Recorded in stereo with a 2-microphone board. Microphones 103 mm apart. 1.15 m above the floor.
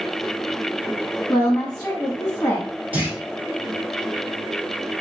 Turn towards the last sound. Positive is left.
turn(degrees=-15)  # may be behind; listen again after turning